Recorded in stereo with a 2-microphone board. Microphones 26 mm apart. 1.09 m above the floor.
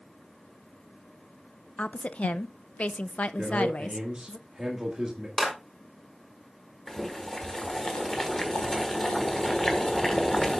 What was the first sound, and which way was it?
A woman speaking, 55° left (ahead or behind).